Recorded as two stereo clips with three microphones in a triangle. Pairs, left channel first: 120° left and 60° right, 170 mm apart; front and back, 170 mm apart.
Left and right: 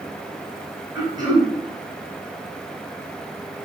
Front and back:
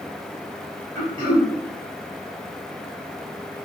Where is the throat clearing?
35° right, 1.2 m.